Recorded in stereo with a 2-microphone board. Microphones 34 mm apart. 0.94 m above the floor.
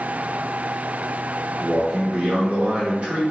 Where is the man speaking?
40° right (ahead or behind), 0.6 m.